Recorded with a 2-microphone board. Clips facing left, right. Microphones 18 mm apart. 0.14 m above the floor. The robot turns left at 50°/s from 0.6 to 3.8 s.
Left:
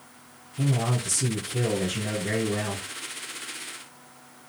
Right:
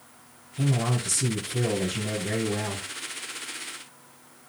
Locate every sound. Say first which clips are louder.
0.6 s a man speaking: even; 140° right, 2.0 m; by 2.9 s 105° left, 2.0 m